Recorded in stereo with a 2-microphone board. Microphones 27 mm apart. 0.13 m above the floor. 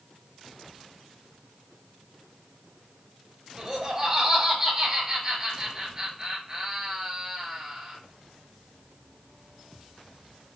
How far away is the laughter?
About 2 m.